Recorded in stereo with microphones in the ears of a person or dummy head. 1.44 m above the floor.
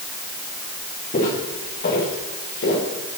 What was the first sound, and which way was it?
Footsteps, 40° left (ahead or behind).